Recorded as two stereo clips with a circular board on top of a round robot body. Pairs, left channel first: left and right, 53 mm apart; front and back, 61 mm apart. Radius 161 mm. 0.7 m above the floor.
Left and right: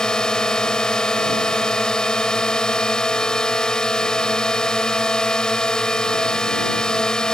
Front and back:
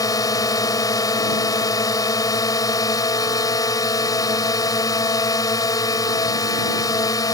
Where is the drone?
15° left.